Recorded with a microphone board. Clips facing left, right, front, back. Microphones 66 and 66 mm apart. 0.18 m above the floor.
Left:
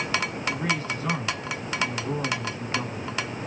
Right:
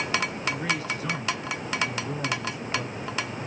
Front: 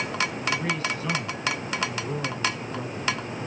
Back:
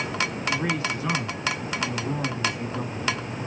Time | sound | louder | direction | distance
0.5 | a man speaking | left 3 dB, back 1 dB | 120° left | 1.9 m